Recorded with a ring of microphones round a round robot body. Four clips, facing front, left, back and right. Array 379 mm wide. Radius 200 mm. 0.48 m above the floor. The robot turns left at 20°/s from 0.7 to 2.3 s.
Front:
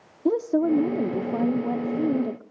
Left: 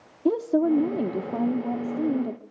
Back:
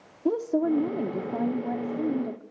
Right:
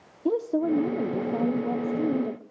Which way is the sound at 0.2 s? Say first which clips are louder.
Left 3 dB, front 3 dB; 35° left.